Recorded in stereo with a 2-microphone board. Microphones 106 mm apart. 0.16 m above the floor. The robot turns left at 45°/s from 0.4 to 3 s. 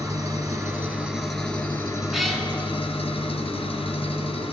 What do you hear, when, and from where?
0.0 s an engine running: 140° right, 1.1 m; by 4.5 s 105° left, 1.1 m
2.1 s a cat meowing: 5° right (ahead or behind), 0.9 m; by 2.5 s 10° left (ahead or behind), 0.9 m